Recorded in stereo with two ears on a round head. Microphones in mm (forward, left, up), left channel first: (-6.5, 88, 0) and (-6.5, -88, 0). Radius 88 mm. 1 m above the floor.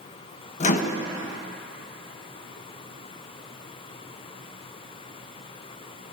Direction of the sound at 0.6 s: 40° left (ahead or behind).